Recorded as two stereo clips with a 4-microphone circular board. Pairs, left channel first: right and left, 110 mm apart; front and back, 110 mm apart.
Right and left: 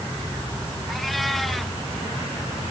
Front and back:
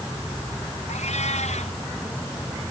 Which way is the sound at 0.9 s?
Straight ahead.